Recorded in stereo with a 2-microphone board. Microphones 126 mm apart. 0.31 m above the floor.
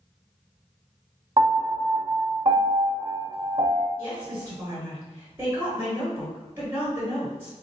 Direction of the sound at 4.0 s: 20° right (ahead or behind).